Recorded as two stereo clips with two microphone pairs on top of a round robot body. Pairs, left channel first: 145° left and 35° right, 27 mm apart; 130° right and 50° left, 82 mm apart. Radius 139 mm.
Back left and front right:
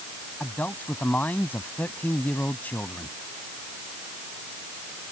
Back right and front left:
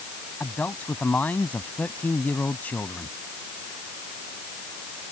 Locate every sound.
0.4 s a man speaking: 160° left